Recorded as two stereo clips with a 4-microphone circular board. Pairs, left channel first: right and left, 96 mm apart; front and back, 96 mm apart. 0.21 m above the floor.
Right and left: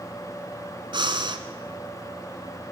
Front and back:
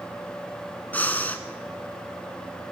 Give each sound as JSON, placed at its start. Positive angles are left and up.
{"t": 0.9, "sound": "breathing", "azimuth_deg": 70, "distance_m": 1.1}